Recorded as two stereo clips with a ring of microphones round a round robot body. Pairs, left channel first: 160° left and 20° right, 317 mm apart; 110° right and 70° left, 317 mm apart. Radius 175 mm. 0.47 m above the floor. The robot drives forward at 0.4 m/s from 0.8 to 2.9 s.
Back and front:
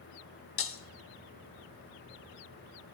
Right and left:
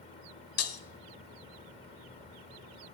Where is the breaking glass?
155° right, 0.8 m.